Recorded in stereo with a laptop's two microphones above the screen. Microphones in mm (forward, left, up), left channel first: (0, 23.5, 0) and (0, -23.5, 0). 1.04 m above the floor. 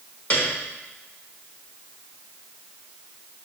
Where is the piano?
35° left (ahead or behind), 1.3 m.